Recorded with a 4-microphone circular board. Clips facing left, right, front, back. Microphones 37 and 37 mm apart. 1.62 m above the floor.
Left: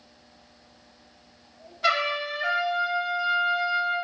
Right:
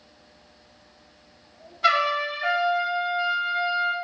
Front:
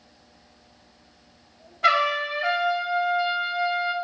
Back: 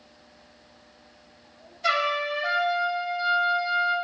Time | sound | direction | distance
1.8 | a trumpet | 5° right | 1.4 m